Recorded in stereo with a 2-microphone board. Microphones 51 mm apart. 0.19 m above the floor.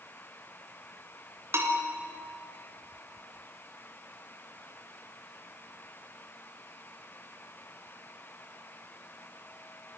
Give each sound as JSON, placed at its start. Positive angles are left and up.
{"t": 1.5, "sound": "a bell", "side_deg": -55, "distance_m": 2.5}